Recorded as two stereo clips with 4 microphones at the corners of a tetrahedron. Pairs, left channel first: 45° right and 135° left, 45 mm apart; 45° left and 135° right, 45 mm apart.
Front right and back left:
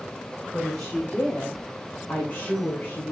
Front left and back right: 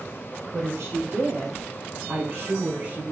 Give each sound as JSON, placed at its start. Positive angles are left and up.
{"t": 0.5, "sound": "a woman speaking", "azimuth_deg": -105, "distance_m": 4.5}